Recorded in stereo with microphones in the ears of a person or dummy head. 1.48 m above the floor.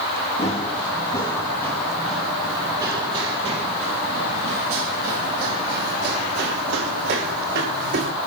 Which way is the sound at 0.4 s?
25° left (ahead or behind).